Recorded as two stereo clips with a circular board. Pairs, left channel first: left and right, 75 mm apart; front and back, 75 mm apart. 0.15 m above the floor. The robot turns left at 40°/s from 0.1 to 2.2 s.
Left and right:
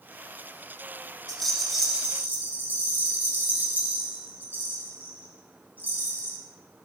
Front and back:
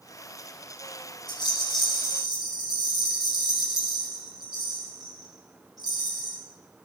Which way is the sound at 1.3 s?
10° left.